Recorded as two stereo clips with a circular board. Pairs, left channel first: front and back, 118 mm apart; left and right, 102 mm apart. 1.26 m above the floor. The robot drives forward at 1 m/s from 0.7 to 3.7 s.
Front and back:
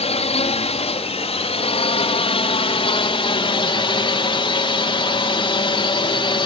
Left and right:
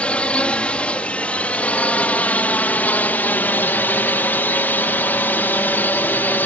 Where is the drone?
15° left; by 6.5 s 25° left.